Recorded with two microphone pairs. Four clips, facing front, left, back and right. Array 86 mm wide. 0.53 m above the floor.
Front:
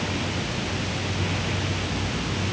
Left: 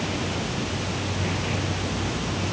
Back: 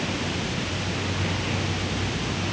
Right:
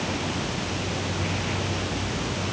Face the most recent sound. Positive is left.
No sound to turn to.